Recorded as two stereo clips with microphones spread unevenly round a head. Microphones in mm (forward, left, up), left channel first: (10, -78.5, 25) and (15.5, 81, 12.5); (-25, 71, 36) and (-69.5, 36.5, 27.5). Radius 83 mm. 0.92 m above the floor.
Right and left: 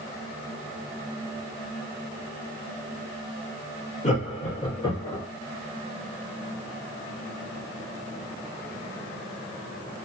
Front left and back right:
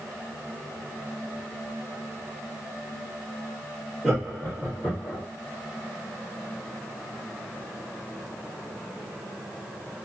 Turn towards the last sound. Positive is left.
turn(degrees=-15)